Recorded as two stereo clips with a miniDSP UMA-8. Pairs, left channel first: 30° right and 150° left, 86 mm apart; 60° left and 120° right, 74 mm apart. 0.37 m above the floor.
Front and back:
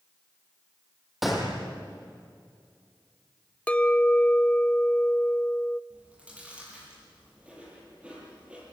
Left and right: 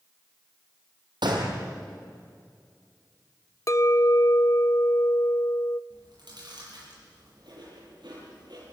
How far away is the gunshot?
About 4 m.